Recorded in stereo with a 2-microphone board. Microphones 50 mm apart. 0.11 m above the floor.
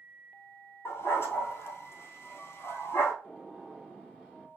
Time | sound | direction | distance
0.8 | a dog barking | 50° left (ahead or behind) | 1.2 m
3.2 | a gunshot | 5° right (ahead or behind) | 2.5 m